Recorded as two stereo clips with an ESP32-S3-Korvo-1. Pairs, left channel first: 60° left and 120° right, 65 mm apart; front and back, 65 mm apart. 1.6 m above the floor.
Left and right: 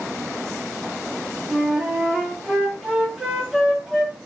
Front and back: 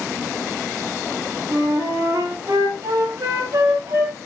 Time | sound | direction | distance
1.5 | a flute | 160° left | 3.5 m